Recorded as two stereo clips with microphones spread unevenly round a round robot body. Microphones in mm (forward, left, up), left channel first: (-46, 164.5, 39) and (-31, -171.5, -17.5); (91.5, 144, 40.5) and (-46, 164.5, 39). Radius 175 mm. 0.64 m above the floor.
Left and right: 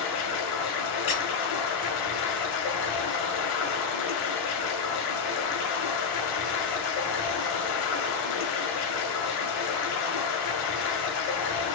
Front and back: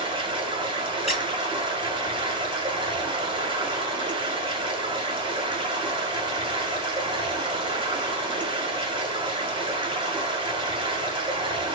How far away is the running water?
About 1.5 m.